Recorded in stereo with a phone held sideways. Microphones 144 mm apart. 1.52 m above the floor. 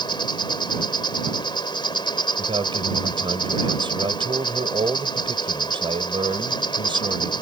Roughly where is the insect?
Left.